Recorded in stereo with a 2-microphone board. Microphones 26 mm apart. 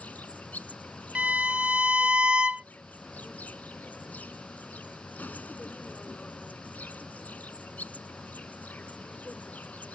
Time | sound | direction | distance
0.0 | an insect | 85° left | ?
1.1 | a violin | 45° right (ahead or behind) | ?